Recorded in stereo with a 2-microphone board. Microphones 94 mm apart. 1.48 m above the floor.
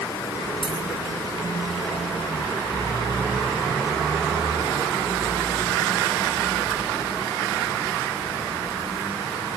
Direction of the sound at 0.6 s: 70° left (ahead or behind).